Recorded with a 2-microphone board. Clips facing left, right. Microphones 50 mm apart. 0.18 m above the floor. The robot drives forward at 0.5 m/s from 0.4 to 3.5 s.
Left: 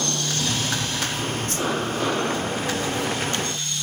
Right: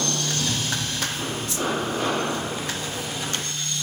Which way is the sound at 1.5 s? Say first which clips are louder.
Left 1 dB; 50° left (ahead or behind).